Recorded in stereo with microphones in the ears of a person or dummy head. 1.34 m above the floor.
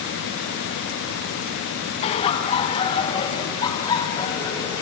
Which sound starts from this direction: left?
Laughter, at 2.0 s.